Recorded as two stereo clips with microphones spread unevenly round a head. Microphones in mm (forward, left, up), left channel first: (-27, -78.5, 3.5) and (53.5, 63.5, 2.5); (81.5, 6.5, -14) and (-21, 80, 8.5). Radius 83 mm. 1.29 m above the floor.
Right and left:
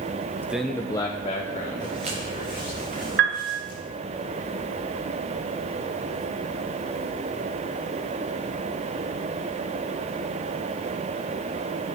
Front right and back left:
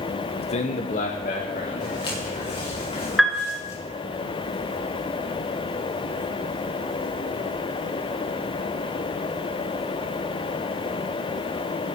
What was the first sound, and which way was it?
A man speaking, 10° right.